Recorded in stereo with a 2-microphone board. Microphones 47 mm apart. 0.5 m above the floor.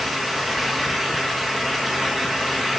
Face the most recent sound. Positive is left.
No sound to turn to.